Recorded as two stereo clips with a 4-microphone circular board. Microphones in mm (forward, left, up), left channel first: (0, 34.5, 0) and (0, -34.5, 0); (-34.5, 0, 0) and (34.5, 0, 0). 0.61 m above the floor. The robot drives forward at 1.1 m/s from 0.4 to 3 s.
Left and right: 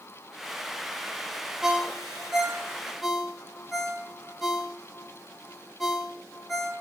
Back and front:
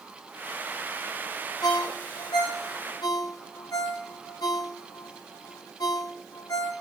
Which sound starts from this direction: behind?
A ringtone, at 1.6 s.